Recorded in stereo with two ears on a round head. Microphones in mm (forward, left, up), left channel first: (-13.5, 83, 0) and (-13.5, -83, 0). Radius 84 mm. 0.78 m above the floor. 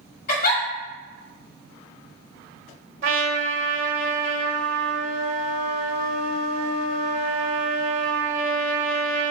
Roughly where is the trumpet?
Right.